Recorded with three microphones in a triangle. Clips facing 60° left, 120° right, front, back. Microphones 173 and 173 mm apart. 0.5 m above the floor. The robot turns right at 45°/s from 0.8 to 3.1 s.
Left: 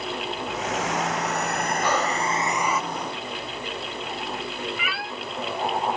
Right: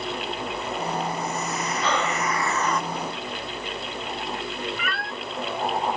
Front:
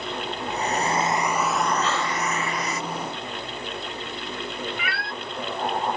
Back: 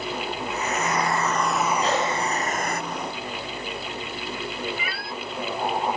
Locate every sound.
0.5 s a hair dryer: 55° left; by 2.8 s 145° left
1.8 s breathing: 135° left; by 2.4 s 160° left
4.8 s a cat meowing: 25° right